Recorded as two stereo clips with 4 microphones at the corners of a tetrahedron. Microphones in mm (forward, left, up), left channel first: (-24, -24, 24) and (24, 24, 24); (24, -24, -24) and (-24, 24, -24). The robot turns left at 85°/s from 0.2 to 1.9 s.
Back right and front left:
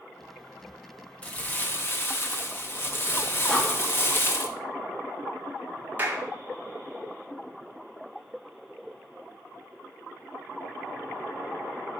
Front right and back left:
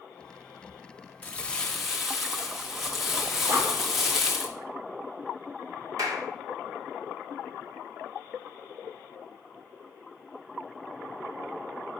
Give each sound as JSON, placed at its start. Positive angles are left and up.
{"t": 1.2, "sound": "crumpling", "azimuth_deg": -85, "distance_m": 1.1}
{"t": 3.5, "sound": "breathing", "azimuth_deg": 150, "distance_m": 1.1}
{"t": 6.0, "sound": "a clap", "azimuth_deg": 105, "distance_m": 1.2}